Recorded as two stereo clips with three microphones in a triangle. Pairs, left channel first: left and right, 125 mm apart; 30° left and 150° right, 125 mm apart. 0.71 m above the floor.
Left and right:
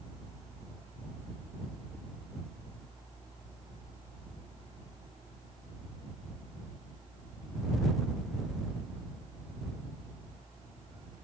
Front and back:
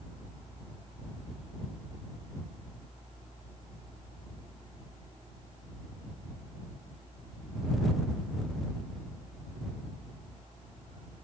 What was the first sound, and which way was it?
Only background noise.